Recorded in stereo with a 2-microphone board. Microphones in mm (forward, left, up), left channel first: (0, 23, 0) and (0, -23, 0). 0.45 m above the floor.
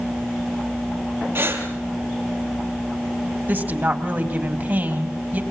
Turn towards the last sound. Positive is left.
turn(degrees=-45)  # may be behind; listen again after turning